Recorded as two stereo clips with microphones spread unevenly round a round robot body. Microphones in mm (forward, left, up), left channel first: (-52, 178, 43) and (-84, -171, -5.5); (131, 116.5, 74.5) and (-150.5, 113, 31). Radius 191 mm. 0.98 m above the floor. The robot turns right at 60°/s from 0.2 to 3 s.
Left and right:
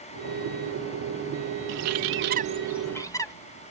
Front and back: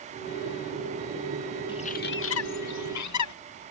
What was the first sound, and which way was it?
A bird, 80° right.